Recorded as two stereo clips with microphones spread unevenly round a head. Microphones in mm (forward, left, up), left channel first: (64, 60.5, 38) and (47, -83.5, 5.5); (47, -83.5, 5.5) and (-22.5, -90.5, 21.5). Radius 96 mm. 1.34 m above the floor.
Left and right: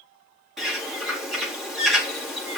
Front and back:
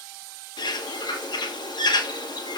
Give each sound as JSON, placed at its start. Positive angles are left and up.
{"t": 0.6, "sound": "a bird", "azimuth_deg": -10, "distance_m": 4.0}